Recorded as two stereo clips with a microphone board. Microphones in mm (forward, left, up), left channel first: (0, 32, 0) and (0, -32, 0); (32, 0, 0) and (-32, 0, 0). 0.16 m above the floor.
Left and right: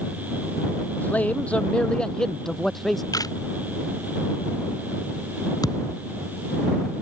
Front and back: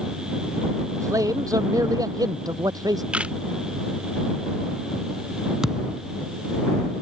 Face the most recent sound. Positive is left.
turn(degrees=95)